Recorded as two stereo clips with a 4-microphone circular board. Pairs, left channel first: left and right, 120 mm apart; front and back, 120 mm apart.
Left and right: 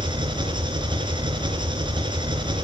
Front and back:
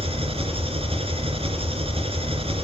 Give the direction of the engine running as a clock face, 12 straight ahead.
5 o'clock.